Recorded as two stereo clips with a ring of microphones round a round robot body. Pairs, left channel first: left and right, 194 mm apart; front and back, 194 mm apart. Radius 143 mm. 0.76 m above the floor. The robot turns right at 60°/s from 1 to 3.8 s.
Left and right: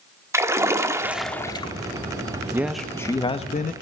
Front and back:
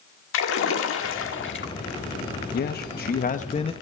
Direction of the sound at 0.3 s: 15° right.